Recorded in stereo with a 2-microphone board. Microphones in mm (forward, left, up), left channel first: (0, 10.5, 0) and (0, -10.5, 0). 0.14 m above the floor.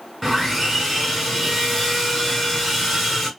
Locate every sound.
0.2 s sawing: 10° left (ahead or behind), 1.7 m